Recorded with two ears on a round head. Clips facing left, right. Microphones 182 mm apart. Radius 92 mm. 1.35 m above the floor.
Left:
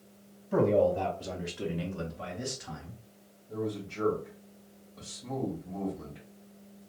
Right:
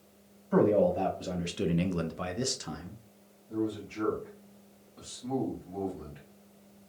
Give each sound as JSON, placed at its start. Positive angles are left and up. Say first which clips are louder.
{"t": 0.5, "sound": "a man speaking", "louder": "right 1 dB", "side_deg": 5, "distance_m": 1.0}
{"t": 3.5, "sound": "a man speaking", "louder": "right 2 dB", "side_deg": 10, "distance_m": 2.5}